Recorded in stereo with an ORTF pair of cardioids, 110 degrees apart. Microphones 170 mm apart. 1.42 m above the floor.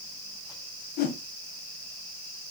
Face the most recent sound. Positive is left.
turn(degrees=70)